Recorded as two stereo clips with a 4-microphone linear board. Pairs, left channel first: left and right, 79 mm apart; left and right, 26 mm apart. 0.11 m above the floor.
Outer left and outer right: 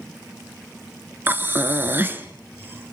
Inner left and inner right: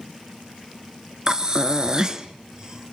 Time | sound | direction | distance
1.3 | breathing | 30° right (ahead or behind) | 1.0 m